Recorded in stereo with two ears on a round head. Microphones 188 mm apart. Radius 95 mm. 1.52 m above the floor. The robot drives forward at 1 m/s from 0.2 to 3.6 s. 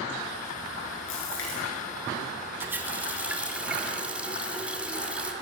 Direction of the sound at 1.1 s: 70° left (ahead or behind).